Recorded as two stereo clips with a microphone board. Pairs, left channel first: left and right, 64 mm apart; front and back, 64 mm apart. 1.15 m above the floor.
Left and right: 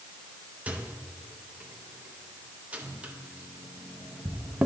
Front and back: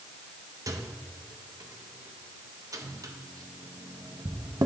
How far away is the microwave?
About 0.6 m.